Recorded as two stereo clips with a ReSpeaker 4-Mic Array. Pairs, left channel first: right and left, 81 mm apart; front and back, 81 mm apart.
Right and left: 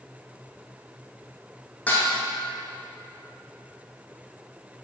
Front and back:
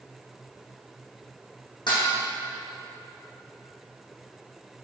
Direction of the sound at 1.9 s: 20° right.